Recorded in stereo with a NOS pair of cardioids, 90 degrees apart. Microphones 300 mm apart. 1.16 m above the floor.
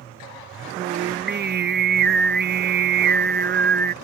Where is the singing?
35° right.